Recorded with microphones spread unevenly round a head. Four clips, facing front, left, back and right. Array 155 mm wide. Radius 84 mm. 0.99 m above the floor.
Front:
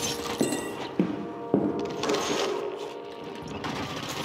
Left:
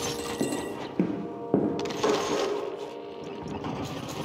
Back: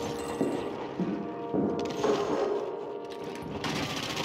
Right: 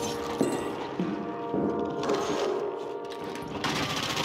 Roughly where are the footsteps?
Ahead right.